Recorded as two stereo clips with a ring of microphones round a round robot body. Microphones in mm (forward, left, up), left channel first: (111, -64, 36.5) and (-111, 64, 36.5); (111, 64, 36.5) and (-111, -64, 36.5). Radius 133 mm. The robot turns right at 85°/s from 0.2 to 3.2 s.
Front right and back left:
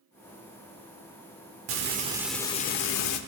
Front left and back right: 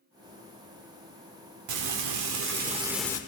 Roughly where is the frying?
Behind.